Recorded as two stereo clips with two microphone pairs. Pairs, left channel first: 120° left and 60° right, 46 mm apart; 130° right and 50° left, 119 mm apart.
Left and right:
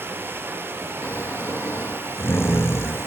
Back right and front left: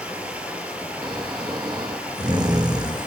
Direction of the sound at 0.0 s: 25° right.